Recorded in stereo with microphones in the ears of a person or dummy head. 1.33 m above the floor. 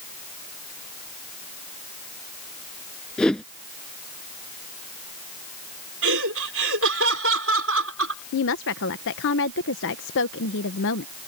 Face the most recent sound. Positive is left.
turn(degrees=65)  # may be behind; listen again after turning